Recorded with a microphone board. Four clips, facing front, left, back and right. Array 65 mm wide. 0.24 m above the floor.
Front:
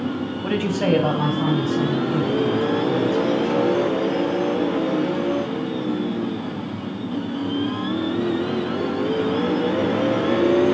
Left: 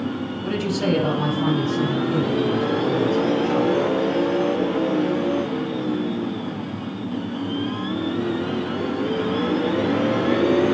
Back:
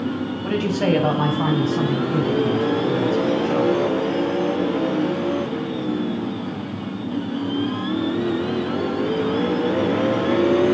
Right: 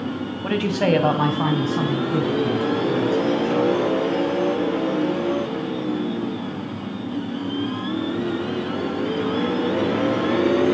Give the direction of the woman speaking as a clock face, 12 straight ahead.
2 o'clock.